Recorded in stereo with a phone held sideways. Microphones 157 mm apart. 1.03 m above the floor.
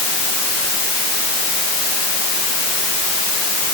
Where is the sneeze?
I don't hear a sneeze.